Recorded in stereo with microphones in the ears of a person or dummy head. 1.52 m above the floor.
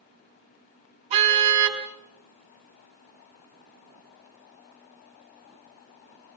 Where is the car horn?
40° right (ahead or behind), 4.5 m.